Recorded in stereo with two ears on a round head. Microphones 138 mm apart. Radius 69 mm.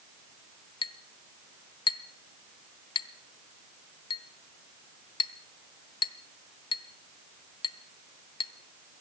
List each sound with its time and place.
0.8 s a clink: 35° left (ahead or behind), 0.9 m